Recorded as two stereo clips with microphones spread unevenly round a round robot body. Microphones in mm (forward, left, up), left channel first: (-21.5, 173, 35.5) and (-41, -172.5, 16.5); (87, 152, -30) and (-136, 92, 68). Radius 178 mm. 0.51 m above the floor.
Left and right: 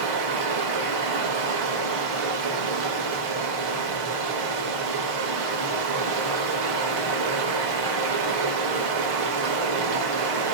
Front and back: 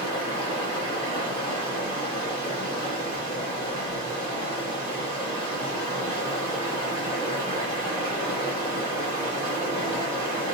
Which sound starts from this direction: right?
Running water, at 0.0 s.